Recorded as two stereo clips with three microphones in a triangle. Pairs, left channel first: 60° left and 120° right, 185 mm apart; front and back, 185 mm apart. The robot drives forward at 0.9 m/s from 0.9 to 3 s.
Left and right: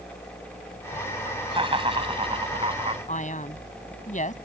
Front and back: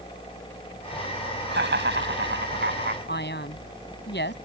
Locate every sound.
1.5 s laughter: straight behind
3.1 s a man speaking: 15° left